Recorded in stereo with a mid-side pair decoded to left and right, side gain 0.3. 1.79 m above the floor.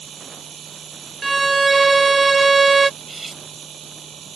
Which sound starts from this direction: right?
A machine running, at 0.0 s.